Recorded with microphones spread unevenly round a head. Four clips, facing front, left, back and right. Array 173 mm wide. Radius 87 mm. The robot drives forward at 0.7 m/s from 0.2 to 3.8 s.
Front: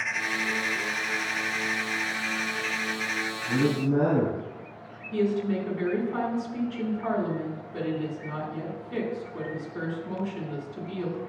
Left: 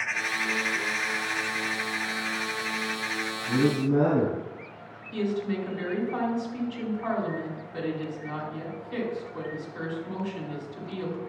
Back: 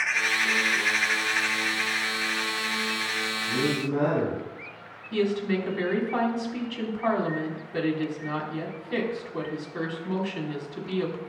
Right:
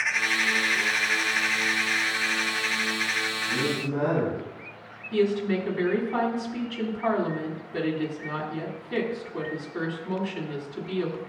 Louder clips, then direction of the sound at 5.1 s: Right 5 dB, even; 150° right.